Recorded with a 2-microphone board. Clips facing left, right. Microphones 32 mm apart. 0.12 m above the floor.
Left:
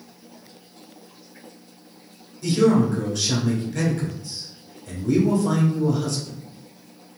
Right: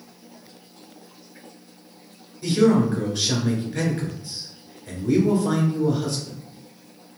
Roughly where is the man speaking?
Right.